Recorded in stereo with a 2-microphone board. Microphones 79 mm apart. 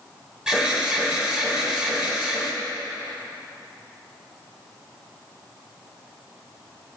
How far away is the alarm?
About 2.5 m.